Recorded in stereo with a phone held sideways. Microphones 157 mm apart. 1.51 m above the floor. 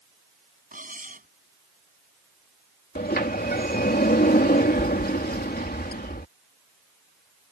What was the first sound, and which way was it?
Cutlery clinking, 60° right (ahead or behind).